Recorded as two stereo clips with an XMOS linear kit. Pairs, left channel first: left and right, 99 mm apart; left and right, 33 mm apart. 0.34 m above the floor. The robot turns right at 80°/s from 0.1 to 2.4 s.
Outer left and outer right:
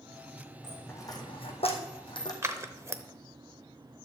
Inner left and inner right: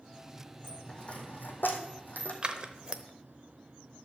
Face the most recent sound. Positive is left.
turn(degrees=-30)  # may be behind; listen again after turning